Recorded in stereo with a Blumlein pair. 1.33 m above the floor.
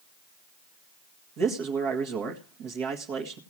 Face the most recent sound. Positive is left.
turn(degrees=-40)